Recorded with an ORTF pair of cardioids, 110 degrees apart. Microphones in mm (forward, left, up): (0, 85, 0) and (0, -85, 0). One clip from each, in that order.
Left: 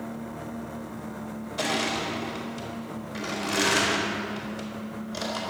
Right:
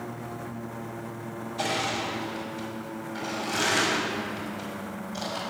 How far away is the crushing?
About 4.5 m.